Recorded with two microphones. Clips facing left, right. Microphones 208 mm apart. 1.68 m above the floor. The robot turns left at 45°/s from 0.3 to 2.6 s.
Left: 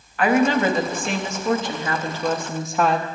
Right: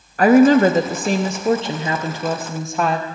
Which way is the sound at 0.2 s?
75° right.